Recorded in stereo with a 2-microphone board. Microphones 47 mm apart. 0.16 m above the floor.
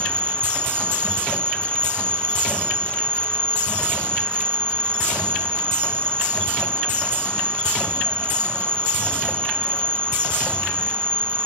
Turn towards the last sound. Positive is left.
turn(degrees=-45)  # may be behind; listen again after turning